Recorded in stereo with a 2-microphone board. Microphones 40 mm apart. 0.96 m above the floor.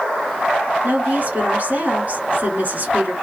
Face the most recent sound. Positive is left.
turn(degrees=-45)  # may be behind; listen again after turning